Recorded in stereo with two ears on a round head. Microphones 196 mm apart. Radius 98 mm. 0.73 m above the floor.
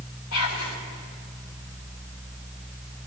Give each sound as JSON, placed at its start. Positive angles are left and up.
{"t": 0.3, "sound": "whispering", "side_deg": 75, "distance_m": 2.0}